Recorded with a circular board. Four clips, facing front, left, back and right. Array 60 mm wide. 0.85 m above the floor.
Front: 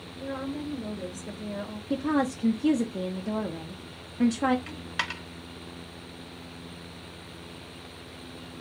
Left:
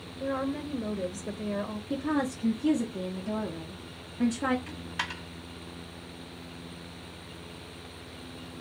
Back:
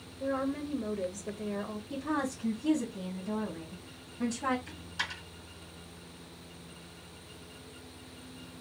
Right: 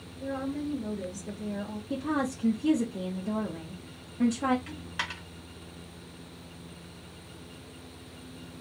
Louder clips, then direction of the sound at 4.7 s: Left 1 dB, front 5 dB; 10° right.